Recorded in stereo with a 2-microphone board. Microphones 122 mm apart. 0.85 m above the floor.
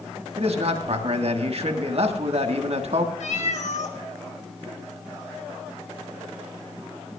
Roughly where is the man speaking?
Right.